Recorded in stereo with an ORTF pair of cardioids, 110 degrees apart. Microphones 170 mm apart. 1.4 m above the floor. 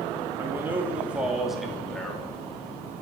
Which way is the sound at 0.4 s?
15° right.